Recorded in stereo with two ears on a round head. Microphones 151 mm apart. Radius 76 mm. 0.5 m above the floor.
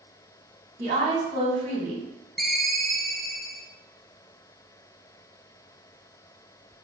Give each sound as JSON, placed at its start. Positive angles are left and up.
{"t": 0.8, "sound": "a woman speaking", "side_deg": -40, "distance_m": 1.7}
{"t": 2.4, "sound": "a ringtone", "side_deg": 0, "distance_m": 0.6}